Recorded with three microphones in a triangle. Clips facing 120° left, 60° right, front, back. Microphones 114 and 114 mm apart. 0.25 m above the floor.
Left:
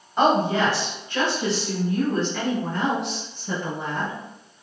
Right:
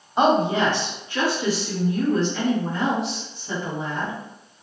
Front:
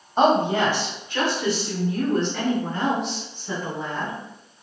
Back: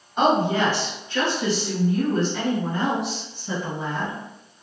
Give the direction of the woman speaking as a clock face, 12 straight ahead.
12 o'clock.